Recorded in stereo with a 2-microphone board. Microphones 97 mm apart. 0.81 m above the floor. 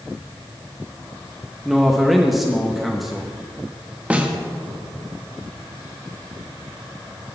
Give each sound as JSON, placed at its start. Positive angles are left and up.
{"t": 1.6, "sound": "a man speaking", "side_deg": 0, "distance_m": 0.7}
{"t": 4.1, "sound": "a snare drum", "side_deg": -15, "distance_m": 0.8}